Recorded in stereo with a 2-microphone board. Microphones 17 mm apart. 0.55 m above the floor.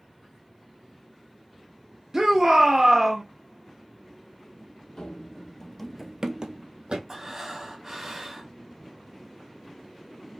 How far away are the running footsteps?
About 1.4 m.